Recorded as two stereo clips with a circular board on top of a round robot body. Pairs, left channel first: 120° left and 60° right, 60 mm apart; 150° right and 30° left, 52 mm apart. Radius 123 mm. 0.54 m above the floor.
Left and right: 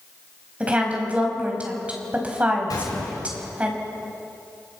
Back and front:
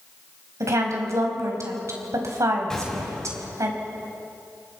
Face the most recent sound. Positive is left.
turn(degrees=130)